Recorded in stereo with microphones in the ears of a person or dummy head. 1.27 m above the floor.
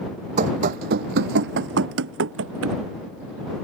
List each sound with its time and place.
0.4 s running footsteps: 40° right (ahead or behind); by 2.8 s 75° right (ahead or behind)